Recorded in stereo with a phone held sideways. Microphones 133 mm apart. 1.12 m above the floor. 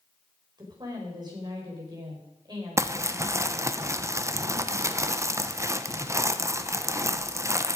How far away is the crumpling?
About 0.7 m.